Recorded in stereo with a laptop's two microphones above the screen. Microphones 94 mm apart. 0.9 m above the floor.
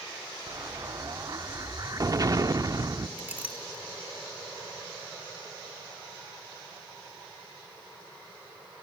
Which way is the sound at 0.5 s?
40° right (ahead or behind).